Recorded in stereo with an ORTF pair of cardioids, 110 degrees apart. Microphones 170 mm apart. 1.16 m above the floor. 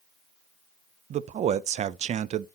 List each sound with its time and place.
1.1 s a man speaking: 40° right, 0.5 m